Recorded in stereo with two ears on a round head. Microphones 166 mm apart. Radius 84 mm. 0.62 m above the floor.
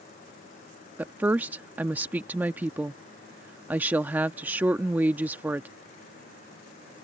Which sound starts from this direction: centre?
A woman speaking, at 1.0 s.